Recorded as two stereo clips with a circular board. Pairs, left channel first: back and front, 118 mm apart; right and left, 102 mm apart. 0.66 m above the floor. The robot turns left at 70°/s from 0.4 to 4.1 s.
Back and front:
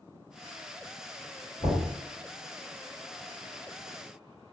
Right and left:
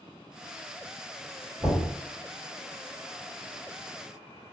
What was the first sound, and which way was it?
Knocking, 150° left.